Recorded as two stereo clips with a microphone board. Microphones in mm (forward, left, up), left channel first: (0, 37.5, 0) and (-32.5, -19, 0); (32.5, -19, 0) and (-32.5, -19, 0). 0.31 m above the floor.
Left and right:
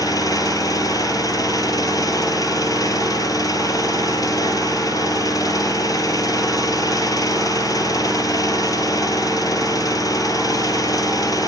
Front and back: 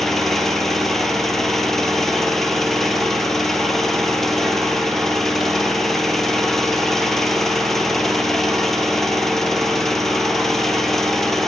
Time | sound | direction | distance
0.0 | an engine running | 85° left | 3 m